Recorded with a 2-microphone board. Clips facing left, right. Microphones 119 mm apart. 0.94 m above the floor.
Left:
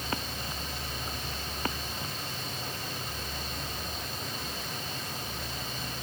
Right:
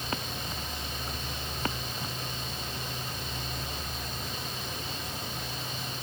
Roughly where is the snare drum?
No snare drum in this recording.